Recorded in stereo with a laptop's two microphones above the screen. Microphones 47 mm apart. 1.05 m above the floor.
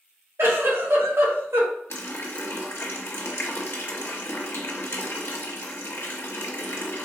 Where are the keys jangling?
No keys jangling in this recording.